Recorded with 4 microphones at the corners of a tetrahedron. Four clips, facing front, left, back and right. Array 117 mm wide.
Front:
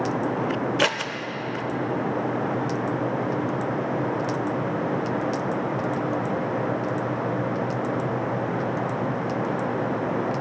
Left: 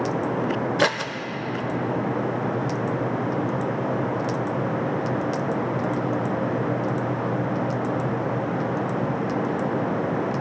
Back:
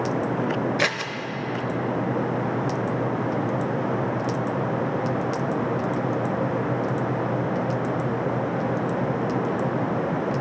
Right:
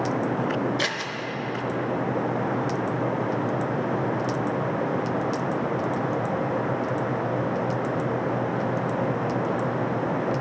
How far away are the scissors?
About 0.6 m.